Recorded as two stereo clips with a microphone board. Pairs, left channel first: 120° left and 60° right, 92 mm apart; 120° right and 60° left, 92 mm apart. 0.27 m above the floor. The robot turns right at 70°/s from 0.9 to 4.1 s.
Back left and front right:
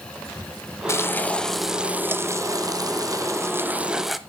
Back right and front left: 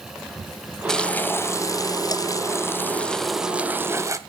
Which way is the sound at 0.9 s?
160° left.